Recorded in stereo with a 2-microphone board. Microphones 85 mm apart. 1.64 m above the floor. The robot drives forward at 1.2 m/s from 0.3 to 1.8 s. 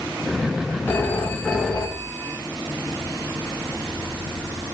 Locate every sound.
0.9 s a phone ringing: 25° left (ahead or behind), 2 m; by 2.4 s 15° left (ahead or behind), 3 m